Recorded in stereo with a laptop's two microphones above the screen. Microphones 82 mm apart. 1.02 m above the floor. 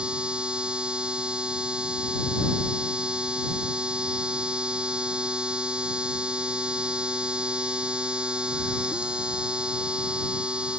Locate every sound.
0.0 s a machine running: 10° right (ahead or behind)